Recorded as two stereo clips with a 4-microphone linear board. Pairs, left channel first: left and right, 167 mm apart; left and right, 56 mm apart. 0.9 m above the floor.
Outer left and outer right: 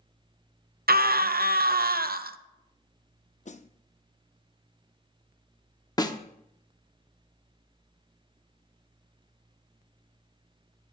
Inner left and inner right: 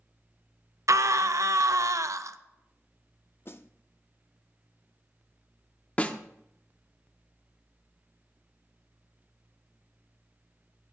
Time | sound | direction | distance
0.9 | a scream | 65° right (ahead or behind) | 0.5 m
3.5 | a snare drum | 45° left (ahead or behind) | 0.5 m
6.0 | a snare drum | 25° left (ahead or behind) | 0.7 m